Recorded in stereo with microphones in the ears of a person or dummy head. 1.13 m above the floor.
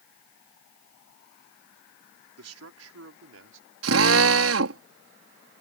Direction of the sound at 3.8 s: 70° right (ahead or behind).